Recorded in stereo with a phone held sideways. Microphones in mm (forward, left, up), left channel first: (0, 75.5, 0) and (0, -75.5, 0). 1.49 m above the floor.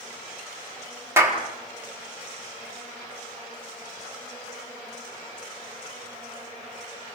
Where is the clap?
15° right (ahead or behind), 3.5 m.